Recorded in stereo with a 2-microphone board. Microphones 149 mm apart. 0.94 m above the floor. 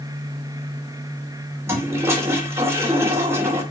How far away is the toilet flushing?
About 3 m.